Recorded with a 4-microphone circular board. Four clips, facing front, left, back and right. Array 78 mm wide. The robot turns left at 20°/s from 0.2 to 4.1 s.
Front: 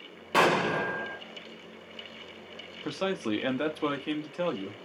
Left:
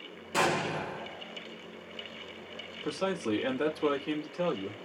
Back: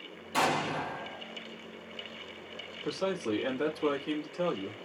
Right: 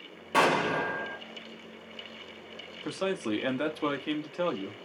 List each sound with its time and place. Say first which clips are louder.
0.3 s an explosion: right 4 dB, front 5 dB; 30° right, 0.8 m; by 1.2 s 50° right, 0.8 m
2.8 s a man speaking: even, front 1 dB; 25° right, 1.0 m; by 4.8 s 50° right, 1.0 m